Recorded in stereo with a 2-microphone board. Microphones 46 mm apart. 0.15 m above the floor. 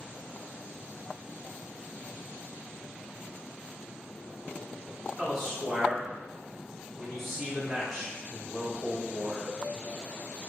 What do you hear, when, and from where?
5.2 s a man speaking: 10° right (ahead or behind), 1.3 m